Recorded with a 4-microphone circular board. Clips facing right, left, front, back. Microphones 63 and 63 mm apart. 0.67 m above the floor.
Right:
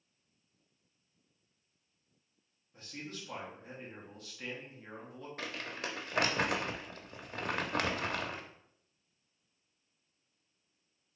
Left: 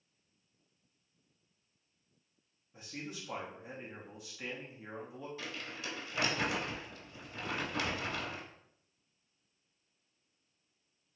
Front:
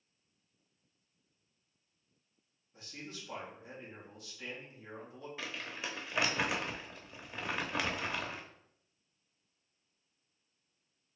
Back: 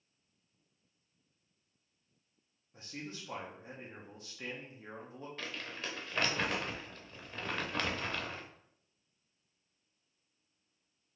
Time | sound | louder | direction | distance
2.7 | a man speaking | left 1 dB, back 3 dB | 160° left | 0.9 m
5.4 | crumpling | right 3 dB, front 1 dB | 80° right | 0.5 m